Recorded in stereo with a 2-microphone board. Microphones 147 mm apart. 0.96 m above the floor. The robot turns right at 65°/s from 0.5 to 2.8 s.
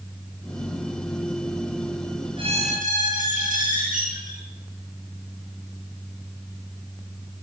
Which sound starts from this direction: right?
A squeak, at 2.4 s.